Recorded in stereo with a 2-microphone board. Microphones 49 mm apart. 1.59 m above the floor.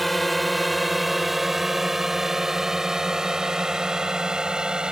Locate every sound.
0.0 s a drone: centre (ahead or behind); by 4.9 s 20° right (ahead or behind)